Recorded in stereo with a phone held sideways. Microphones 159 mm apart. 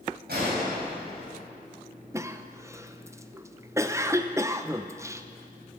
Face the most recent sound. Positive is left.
turn(degrees=-20)  # may be behind; listen again after turning